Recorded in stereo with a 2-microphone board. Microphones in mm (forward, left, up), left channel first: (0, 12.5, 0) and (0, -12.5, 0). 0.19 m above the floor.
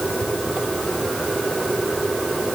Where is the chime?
I don't hear a chime.